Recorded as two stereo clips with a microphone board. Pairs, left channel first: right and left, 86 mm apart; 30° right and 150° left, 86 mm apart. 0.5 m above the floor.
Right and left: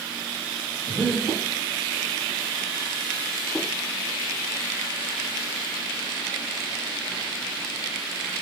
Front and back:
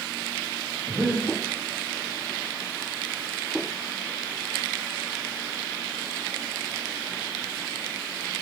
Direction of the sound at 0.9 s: 65° left.